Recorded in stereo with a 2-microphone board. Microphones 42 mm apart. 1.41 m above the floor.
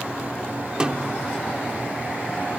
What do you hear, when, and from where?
0.8 s a snare drum: 20° right (ahead or behind)